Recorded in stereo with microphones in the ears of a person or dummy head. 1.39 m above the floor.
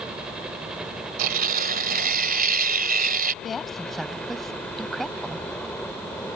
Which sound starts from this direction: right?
Tearing paper, at 1.2 s.